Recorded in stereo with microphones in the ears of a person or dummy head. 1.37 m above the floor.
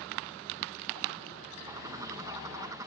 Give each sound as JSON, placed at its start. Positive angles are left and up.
{"t": 1.7, "sound": "a bird", "side_deg": -15}